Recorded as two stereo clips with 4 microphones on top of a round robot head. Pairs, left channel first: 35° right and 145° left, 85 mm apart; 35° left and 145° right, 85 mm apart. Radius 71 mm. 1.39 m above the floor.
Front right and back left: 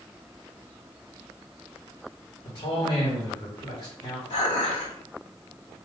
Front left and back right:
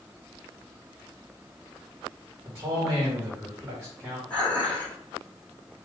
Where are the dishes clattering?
40° right, 2.5 m.